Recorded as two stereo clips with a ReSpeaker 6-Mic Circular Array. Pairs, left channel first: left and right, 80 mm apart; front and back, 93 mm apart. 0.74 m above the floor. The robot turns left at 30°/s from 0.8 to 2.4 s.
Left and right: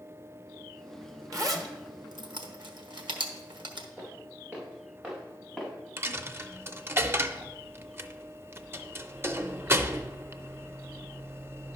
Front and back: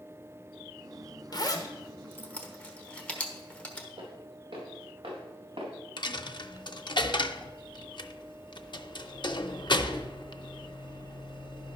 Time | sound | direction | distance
1.3 | a zipper | 45° right | 1.2 m
4.0 | footsteps | 155° right | 4.5 m
6.0 | a dropped coin | 30° right | 0.5 m